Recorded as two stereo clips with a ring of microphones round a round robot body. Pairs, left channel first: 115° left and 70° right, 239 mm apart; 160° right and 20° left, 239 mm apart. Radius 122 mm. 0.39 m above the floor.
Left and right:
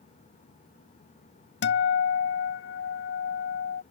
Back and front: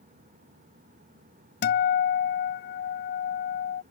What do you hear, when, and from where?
1.6 s a guitar: 155° left